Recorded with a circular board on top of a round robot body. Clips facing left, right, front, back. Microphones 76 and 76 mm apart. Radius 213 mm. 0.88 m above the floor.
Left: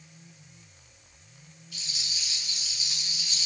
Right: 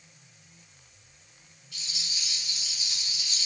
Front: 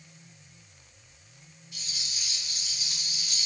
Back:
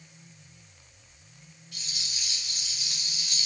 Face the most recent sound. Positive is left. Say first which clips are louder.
# even, back 1 dB
turn(degrees=165)